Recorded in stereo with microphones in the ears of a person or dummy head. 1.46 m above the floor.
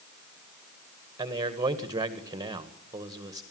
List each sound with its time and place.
1.2 s a man speaking: 15° right (ahead or behind), 1.7 m